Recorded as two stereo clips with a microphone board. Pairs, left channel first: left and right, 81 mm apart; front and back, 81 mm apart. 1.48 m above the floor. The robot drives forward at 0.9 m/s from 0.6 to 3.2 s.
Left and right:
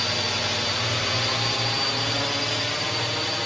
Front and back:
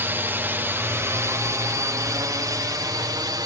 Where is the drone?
Straight behind.